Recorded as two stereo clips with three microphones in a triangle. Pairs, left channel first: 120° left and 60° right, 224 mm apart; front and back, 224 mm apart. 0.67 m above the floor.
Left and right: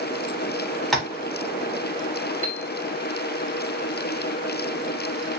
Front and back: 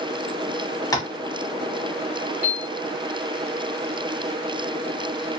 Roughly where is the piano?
Left.